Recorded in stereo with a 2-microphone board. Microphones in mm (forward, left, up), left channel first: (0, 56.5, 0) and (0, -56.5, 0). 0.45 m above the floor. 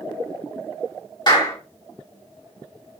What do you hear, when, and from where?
1.3 s a clap: 40° left (ahead or behind), 2.5 m